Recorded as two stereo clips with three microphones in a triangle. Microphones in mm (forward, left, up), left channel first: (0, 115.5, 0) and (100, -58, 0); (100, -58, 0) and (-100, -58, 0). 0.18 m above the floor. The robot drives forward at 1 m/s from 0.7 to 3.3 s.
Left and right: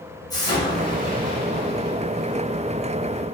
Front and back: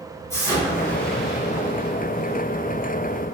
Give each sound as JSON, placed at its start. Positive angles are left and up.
{"t": 0.3, "sound": "an explosion", "azimuth_deg": 65, "distance_m": 1.8}